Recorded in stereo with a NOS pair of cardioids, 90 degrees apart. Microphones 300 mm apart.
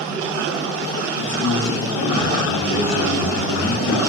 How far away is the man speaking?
About 1.4 m.